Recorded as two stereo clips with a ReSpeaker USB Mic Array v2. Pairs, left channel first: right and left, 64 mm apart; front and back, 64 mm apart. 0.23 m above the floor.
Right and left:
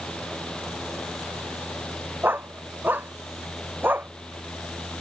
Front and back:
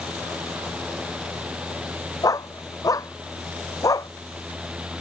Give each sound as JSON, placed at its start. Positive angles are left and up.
{"t": 2.2, "sound": "a dog barking", "azimuth_deg": 30}